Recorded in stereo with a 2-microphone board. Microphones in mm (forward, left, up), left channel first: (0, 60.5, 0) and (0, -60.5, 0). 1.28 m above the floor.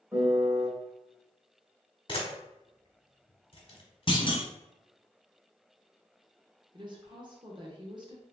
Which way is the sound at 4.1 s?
40° left (ahead or behind).